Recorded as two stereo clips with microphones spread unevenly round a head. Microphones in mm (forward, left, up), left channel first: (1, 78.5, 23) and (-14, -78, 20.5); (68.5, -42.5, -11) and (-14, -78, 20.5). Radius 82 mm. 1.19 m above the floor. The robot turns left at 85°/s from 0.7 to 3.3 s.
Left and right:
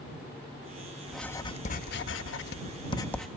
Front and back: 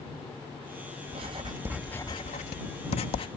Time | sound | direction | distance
1.1 | writing | straight behind | ?